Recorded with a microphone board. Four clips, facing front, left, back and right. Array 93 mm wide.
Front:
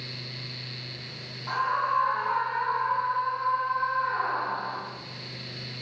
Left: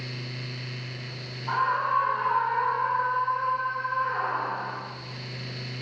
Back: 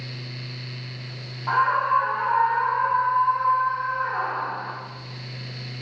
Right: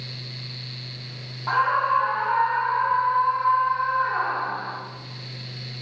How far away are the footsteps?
No footsteps in this recording.